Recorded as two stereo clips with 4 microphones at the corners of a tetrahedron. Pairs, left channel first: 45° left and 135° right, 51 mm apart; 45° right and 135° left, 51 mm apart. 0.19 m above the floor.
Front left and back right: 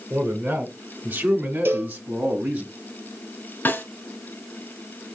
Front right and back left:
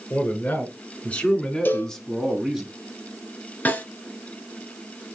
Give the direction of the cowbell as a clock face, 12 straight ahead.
3 o'clock.